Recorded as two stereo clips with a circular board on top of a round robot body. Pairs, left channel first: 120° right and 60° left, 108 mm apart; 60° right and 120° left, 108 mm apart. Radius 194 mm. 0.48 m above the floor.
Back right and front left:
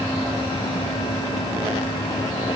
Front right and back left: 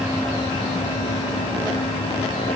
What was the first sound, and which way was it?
Only background noise.